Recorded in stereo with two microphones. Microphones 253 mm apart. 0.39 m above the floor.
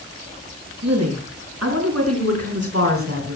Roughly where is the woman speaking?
Right.